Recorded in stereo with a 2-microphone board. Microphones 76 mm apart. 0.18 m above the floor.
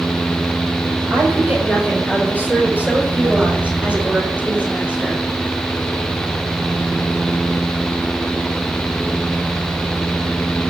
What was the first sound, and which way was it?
A woman speaking, 25° right (ahead or behind).